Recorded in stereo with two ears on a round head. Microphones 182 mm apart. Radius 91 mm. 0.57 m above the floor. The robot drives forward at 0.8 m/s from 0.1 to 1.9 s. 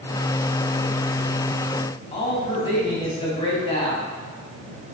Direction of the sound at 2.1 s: 25° left (ahead or behind).